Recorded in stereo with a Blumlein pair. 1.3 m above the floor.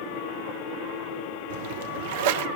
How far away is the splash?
About 0.8 m.